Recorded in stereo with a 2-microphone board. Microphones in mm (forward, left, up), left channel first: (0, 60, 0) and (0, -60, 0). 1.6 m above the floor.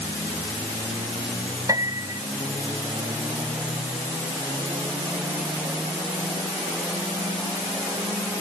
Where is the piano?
30° right (ahead or behind).